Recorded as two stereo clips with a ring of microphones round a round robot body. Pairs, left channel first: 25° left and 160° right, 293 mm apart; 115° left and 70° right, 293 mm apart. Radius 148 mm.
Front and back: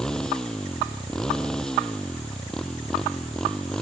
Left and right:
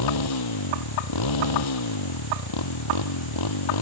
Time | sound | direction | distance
0.0 | a motorcycle | 110° left | ?